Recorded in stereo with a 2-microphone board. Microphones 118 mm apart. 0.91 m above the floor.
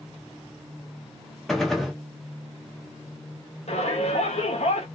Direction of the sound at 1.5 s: Centre (ahead or behind).